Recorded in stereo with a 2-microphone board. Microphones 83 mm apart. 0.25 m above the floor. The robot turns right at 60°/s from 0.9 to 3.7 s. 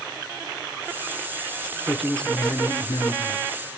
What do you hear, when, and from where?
1.9 s a man speaking: 5° right, 3.5 m; by 3.4 s 90° left, 3.5 m